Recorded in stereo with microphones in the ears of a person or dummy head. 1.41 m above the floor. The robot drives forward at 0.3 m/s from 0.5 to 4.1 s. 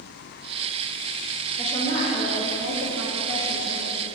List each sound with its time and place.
1.6 s a woman speaking: 35° left (ahead or behind), 0.8 m; by 4.1 s 60° left (ahead or behind), 0.5 m